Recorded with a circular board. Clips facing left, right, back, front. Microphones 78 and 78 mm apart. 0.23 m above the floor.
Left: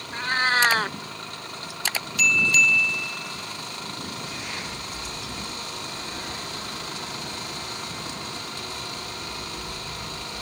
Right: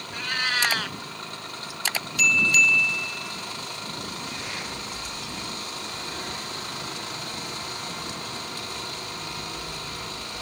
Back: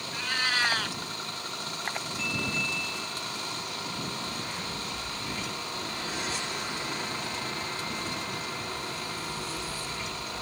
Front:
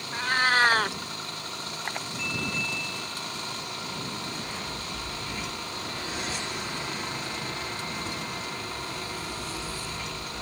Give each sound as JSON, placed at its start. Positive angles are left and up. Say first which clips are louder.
{"t": 0.1, "sound": "a cat meowing", "louder": "left 6 dB, front 7 dB", "azimuth_deg": 40}